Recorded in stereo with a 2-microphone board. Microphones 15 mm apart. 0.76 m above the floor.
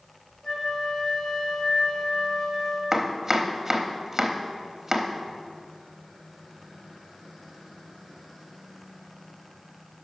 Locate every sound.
0.4 s a flute: 75° left (ahead or behind), 3.5 m
2.9 s chopping: 20° right (ahead or behind), 0.9 m